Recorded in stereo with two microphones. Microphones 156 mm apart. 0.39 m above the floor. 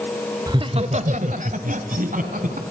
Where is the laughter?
25° right (ahead or behind), 1.1 m; by 2.6 s 60° right (ahead or behind), 3.5 m.